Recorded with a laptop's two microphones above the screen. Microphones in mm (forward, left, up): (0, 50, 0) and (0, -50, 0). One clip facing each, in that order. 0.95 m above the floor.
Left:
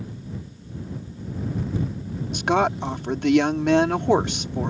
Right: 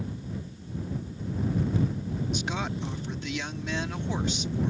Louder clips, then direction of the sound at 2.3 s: Left 11 dB; 70° left (ahead or behind).